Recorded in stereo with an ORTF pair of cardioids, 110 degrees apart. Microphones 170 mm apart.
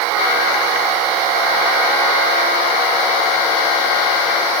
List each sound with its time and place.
Only background noise.